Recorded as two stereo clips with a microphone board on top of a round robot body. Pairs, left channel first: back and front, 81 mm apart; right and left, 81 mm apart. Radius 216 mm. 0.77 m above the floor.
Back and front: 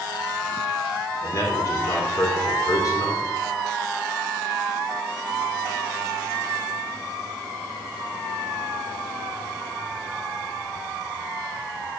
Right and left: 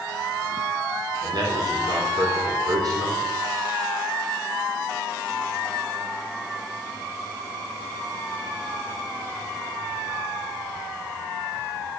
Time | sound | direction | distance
1.2 | a man speaking | 130° left | 3 m